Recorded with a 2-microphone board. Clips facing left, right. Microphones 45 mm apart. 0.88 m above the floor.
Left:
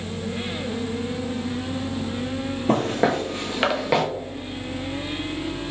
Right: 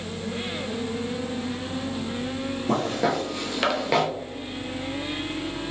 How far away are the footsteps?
About 1.1 m.